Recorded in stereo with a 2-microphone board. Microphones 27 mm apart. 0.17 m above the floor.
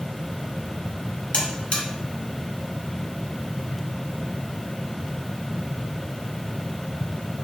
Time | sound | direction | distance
1.3 | a buzzer | 40° left (ahead or behind) | 1.4 m